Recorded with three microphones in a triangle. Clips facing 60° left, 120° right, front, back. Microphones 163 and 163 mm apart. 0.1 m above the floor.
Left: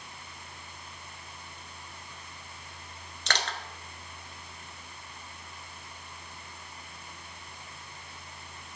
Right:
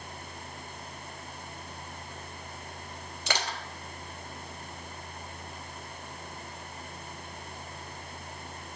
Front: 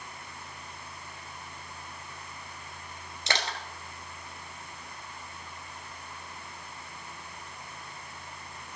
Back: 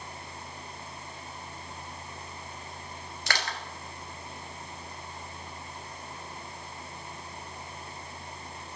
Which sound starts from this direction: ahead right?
Crushing, at 3.3 s.